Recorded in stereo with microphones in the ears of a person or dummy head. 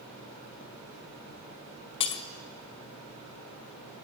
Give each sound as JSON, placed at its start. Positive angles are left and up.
{"t": 2.0, "sound": "breaking glass", "side_deg": 30, "distance_m": 0.9}